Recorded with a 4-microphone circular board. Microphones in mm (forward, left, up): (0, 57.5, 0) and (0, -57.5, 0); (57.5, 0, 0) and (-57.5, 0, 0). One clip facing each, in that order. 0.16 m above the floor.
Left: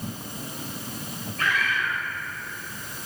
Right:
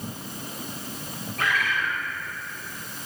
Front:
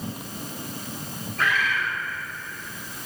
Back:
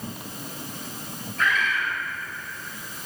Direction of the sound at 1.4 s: 85° right.